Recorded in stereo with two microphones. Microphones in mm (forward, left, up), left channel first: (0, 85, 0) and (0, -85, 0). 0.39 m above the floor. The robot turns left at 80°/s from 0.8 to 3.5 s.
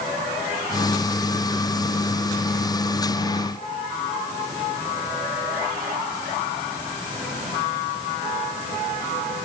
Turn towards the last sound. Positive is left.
No sound to turn to.